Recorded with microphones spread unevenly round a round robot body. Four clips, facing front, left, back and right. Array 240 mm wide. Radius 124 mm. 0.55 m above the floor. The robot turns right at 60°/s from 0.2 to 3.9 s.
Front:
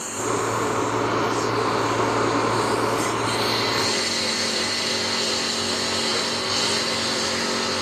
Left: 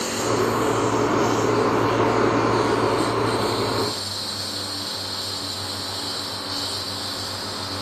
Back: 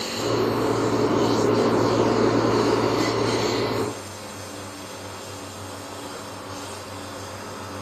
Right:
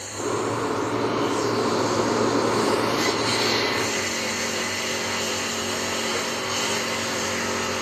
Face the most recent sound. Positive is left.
turn(degrees=-40)